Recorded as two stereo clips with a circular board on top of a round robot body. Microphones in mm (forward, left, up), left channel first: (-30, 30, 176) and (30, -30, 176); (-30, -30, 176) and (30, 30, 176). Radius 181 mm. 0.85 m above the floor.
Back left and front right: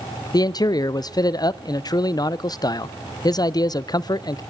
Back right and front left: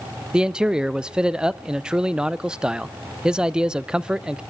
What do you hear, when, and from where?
0.3 s a man speaking: 125° left, 0.6 m